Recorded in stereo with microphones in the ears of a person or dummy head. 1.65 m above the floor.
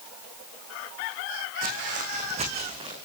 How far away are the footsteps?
About 4 m.